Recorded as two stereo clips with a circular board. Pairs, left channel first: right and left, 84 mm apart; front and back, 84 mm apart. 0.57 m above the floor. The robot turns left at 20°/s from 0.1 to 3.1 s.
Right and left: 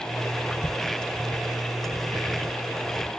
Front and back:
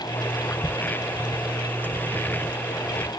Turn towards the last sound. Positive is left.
No sound to turn to.